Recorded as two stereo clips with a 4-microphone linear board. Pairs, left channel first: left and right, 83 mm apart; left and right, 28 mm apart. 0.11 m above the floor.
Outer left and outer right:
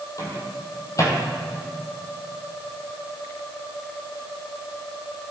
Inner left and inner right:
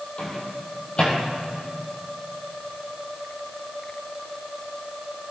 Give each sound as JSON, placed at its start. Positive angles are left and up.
{"t": 0.2, "sound": "a microwave", "side_deg": 40, "distance_m": 2.5}